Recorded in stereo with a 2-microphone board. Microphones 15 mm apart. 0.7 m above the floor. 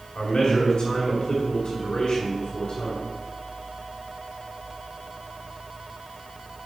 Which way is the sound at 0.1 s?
55° left (ahead or behind).